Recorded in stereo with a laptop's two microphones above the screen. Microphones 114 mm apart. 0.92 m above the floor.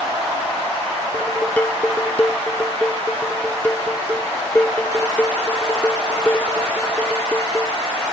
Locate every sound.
1.1 s dishes clattering: 15° left (ahead or behind)